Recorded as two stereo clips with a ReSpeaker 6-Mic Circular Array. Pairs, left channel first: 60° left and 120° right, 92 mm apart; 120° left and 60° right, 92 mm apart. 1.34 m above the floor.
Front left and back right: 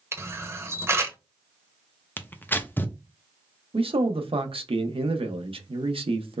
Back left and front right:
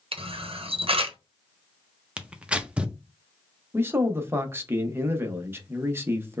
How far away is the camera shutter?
About 0.8 m.